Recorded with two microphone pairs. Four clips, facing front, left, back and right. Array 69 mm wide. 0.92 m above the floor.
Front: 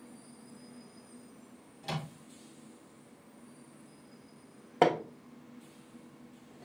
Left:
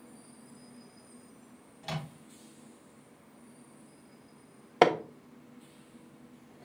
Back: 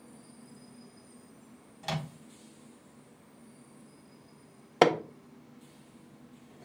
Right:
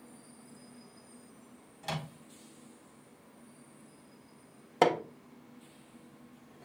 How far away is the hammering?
About 0.5 m.